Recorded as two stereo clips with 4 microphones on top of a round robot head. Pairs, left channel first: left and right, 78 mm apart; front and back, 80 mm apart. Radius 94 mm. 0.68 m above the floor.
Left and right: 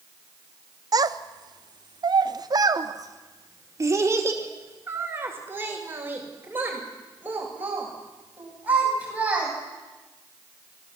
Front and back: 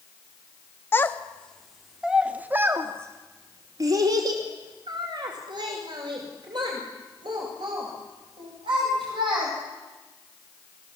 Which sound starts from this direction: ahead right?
A child speaking, at 0.9 s.